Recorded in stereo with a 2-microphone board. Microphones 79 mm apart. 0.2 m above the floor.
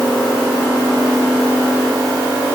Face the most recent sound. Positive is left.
No sound to turn to.